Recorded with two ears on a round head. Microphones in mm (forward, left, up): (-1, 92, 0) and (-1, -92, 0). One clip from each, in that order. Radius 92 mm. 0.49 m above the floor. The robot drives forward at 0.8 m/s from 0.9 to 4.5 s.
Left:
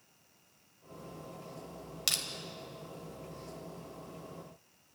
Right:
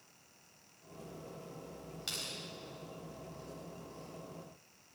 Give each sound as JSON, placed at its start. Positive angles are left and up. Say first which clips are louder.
{"t": 2.1, "sound": "crushing", "louder": "left 8 dB", "side_deg": 65, "distance_m": 2.5}